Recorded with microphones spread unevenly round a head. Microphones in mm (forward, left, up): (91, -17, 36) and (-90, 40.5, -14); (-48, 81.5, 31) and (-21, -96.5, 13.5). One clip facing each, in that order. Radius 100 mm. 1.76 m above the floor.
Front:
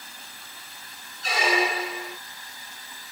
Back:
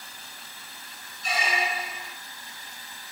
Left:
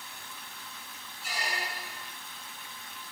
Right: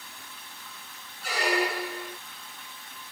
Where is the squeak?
40° right.